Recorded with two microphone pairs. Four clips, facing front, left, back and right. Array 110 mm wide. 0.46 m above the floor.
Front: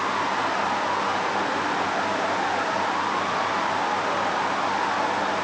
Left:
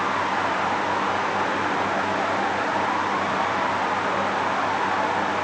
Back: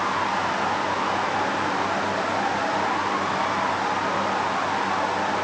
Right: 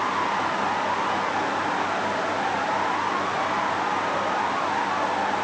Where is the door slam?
No door slam in this recording.